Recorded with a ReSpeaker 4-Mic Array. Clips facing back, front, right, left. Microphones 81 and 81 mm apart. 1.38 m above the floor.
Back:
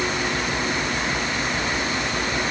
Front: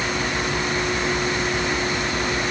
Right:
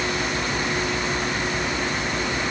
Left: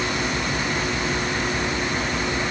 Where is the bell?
I don't hear a bell.